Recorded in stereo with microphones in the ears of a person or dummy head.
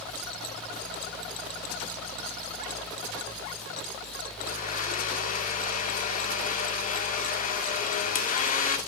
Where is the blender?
55° left (ahead or behind), 1.8 m.